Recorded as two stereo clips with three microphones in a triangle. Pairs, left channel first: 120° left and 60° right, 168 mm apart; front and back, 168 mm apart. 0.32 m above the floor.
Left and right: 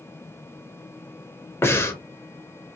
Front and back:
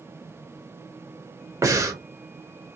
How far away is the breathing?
About 0.6 m.